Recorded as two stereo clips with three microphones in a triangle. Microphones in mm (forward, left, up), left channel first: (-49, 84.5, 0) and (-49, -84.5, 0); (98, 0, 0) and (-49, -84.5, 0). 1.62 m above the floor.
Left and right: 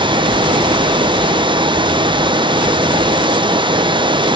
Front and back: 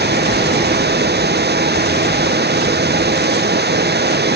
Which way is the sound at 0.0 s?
150° right.